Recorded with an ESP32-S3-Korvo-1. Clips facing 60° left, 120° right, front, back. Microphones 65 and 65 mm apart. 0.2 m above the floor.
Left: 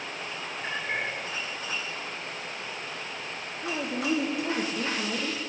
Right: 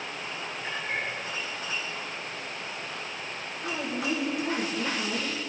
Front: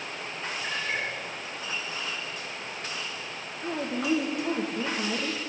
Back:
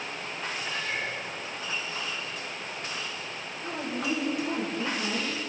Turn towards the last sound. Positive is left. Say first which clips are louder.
# left 1 dB, front 3 dB
turn(degrees=20)